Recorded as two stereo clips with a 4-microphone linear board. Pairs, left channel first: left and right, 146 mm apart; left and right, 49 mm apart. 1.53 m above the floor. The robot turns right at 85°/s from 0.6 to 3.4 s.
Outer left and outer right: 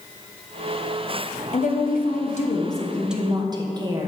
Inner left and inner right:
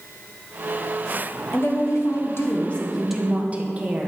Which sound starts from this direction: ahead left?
A woman speaking, at 1.5 s.